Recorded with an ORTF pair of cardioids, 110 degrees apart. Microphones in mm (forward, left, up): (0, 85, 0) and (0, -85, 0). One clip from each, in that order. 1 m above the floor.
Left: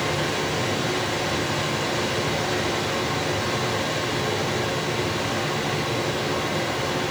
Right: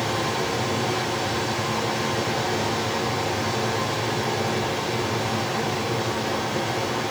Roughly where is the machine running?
Ahead left.